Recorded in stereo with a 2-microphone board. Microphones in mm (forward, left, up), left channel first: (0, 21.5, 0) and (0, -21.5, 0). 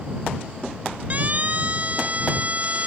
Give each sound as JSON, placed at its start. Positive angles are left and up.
{"t": 1.1, "sound": "a siren", "side_deg": -35}